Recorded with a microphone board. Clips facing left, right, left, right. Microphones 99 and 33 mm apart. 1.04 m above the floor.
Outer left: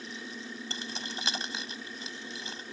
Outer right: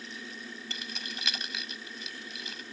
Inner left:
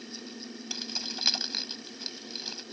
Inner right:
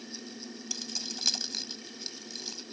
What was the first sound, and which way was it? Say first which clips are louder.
Keys jangling: outer left 3 dB, inner left 3 dB; 30° left (ahead or behind).